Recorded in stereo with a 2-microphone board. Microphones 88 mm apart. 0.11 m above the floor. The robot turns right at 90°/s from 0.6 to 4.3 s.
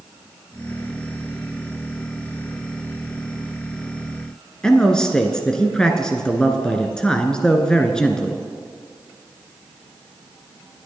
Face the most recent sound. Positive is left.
turn(degrees=10)  # may be behind; listen again after turning